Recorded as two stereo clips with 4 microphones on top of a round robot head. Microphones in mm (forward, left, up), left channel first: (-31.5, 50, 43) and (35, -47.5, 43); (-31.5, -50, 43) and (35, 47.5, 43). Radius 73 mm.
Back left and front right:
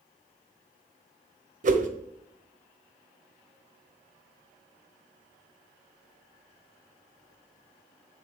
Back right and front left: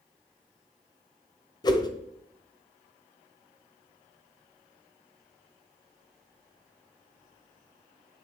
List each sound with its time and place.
1.6 s a whoosh: 65° right, 1.1 m